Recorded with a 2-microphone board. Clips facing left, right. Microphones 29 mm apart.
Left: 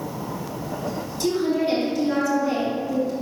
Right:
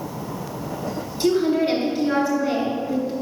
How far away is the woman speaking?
About 3 m.